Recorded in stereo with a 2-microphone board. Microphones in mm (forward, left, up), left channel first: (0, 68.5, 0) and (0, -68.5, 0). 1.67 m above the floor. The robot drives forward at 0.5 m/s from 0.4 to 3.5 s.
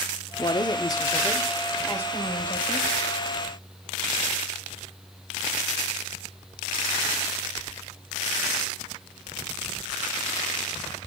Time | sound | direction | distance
0.4 | a woman speaking | 40° left (ahead or behind) | 0.6 m